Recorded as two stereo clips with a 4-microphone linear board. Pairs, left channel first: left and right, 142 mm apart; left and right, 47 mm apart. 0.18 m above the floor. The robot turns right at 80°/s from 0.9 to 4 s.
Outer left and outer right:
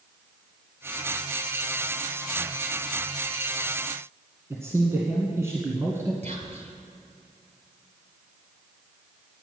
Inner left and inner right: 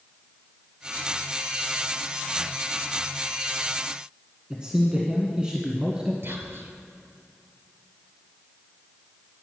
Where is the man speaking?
20° right (ahead or behind), 1.5 m.